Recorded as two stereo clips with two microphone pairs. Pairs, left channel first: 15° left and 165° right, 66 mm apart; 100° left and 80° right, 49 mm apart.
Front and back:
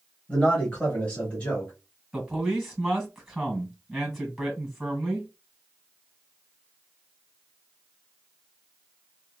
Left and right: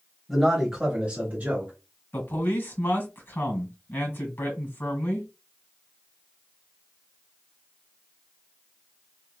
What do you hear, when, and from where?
0.3 s a man speaking: 25° left, 0.9 m; by 1.7 s 45° right, 1.4 m
2.1 s a man speaking: 110° left, 1.9 m